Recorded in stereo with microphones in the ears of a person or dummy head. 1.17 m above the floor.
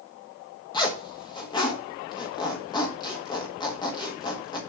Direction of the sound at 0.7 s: 20° left (ahead or behind).